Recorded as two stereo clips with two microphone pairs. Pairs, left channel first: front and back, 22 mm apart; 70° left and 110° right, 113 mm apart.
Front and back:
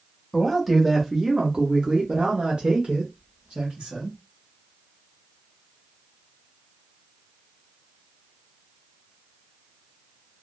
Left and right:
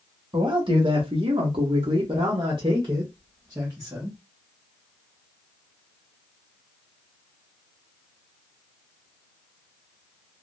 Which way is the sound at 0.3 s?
75° right.